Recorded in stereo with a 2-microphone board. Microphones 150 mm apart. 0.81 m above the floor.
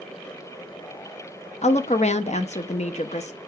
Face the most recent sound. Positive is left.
turn(degrees=50)  # may be behind; listen again after turning